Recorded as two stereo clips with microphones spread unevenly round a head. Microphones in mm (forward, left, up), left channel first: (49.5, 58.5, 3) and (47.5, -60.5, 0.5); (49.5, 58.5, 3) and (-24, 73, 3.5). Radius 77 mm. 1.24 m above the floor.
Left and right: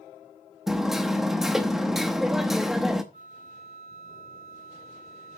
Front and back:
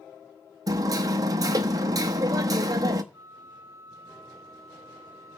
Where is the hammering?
Straight behind, 0.7 m.